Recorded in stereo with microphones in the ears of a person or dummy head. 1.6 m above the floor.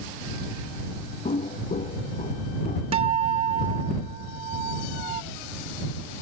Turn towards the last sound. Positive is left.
turn(degrees=-30)  # may be behind; listen again after turning